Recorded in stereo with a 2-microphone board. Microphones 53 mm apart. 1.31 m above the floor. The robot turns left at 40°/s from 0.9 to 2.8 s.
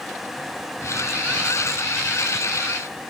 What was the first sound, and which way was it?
Only background noise.